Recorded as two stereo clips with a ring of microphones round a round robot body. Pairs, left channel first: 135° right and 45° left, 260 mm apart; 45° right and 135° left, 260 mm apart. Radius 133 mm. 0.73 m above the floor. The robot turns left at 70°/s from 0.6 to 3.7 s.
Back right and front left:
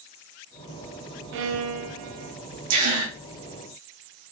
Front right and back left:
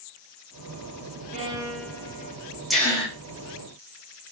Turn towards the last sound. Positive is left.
turn(degrees=-25)